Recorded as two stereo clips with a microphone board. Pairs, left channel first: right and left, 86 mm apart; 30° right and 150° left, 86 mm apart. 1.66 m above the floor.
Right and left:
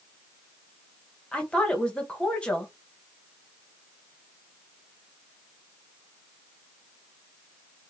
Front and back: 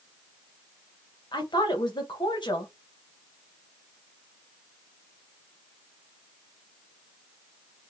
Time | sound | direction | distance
1.3 | a woman speaking | 10° right | 1.4 m